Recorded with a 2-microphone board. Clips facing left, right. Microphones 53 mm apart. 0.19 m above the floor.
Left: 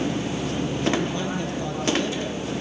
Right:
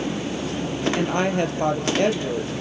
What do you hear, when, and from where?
0.9 s a woman speaking: 60° right (ahead or behind), 4 m